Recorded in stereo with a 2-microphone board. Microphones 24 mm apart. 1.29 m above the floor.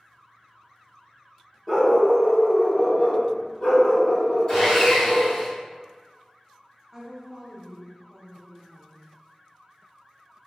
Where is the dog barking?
25° left (ahead or behind), 0.9 m; by 5.3 s 35° left (ahead or behind), 2.5 m.